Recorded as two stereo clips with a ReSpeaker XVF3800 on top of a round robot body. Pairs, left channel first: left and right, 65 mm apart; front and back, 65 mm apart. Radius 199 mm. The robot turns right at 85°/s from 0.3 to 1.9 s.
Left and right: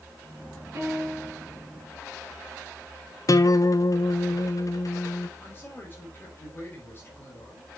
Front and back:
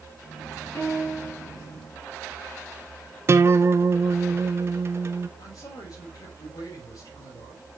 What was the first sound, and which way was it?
A piano, 55° right.